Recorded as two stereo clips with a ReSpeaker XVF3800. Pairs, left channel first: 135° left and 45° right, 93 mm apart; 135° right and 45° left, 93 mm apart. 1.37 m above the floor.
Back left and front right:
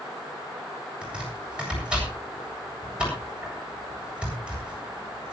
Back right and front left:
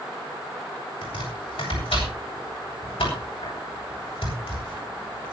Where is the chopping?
125° right, 8.5 m.